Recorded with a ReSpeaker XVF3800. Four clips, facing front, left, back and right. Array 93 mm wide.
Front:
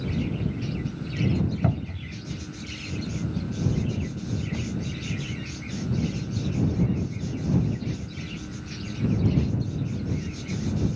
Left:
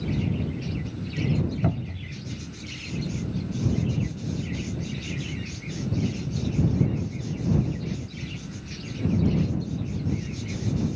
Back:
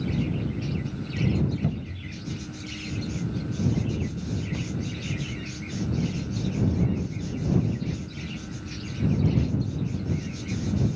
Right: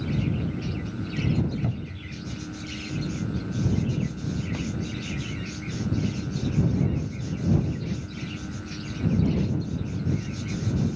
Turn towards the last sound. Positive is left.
turn(degrees=35)